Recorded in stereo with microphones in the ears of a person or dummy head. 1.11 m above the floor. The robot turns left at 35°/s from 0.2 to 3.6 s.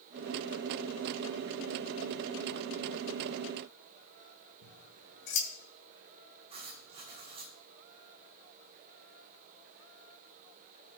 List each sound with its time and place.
4.6 s scissors: 65° left (ahead or behind), 2 m
6.5 s writing: 25° right (ahead or behind), 3.5 m